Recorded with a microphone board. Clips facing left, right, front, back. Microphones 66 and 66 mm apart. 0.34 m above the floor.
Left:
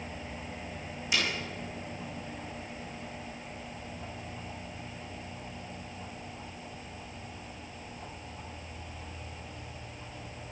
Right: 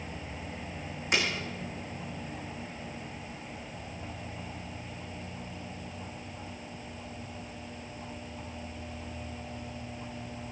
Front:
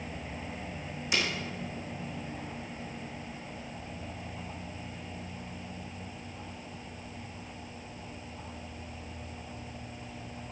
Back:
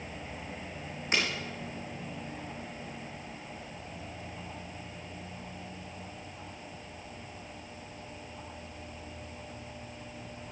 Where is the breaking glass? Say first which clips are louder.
Right 2 dB, back 1 dB; 130° right, 6 m.